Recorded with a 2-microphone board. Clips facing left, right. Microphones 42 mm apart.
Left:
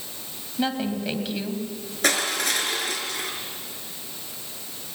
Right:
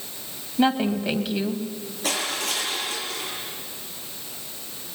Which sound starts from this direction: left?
Crushing, at 2.0 s.